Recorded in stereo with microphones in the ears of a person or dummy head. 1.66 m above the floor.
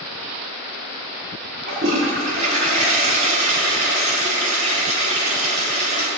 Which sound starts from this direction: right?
A toilet flushing, at 1.7 s.